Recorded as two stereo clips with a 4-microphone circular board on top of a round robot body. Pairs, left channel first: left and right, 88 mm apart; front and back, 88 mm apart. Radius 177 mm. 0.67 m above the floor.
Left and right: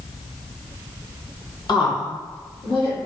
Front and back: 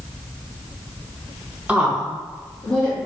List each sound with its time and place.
1.7 s a woman speaking: 110° left, 1.3 m; by 3.0 s 80° left, 2.5 m